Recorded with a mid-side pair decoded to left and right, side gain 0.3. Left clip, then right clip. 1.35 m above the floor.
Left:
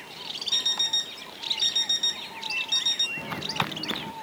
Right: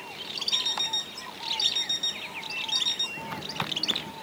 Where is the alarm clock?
45° left.